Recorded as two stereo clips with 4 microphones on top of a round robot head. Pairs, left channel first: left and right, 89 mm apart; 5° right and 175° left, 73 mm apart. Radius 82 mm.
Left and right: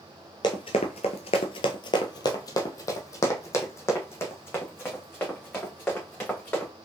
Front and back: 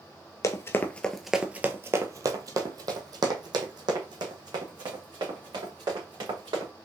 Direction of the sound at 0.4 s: 35° left.